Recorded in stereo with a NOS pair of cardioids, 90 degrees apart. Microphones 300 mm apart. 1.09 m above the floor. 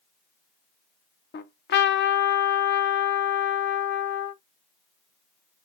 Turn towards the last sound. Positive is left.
turn(degrees=35)